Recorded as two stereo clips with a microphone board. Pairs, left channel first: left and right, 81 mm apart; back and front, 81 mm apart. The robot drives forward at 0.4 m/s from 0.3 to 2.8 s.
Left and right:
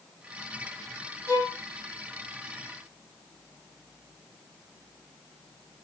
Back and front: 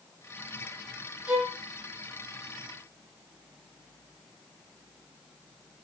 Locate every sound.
1.3 s a violin: 65° right, 1.0 m; by 1.6 s 75° right, 1.0 m